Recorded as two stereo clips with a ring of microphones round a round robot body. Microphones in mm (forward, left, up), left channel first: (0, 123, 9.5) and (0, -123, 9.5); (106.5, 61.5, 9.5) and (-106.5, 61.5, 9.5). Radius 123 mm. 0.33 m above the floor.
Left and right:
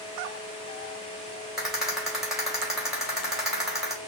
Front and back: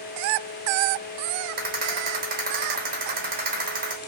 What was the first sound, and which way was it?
A rattle, 175° right.